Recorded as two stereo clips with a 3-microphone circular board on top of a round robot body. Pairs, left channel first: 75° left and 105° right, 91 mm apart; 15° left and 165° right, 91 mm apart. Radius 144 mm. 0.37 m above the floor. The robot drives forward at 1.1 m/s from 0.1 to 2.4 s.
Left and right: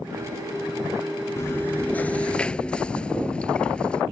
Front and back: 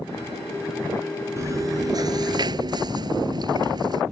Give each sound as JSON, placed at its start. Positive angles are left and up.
{"t": 1.4, "sound": "chewing", "azimuth_deg": 140}